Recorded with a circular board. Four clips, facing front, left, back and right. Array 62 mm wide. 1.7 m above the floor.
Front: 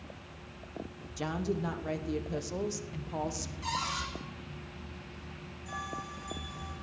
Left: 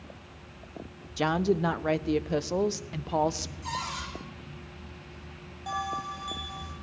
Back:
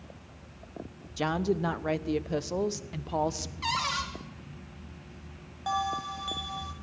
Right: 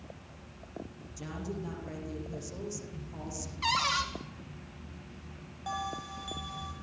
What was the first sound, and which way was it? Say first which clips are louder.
A woman speaking: left 14 dB, back 5 dB; 115° left.